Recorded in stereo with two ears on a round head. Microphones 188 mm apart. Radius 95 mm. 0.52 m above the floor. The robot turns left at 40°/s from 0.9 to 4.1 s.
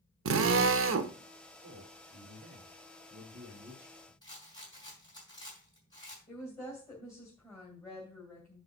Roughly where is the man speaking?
Right.